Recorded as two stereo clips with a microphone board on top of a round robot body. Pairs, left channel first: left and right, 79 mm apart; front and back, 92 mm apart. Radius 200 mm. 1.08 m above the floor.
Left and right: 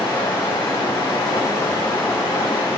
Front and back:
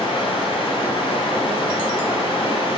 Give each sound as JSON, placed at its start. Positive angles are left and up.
{"t": 0.0, "sound": "running water", "azimuth_deg": 35, "distance_m": 8.0}